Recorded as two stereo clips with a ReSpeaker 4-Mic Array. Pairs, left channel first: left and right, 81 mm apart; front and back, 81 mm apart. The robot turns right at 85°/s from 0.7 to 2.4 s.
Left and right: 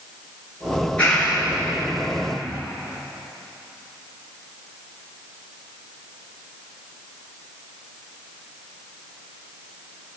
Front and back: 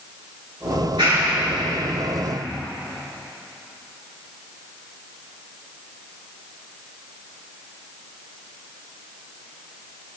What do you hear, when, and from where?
0.7 s a clap: 140° left, 9.5 m; by 2.6 s 75° right, 9.5 m